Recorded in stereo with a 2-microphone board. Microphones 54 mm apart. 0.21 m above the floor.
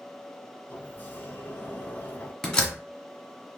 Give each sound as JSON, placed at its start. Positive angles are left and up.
{"t": 0.7, "sound": "a sliding door", "side_deg": 35, "distance_m": 0.9}
{"t": 2.4, "sound": "a door slam", "side_deg": 10, "distance_m": 1.2}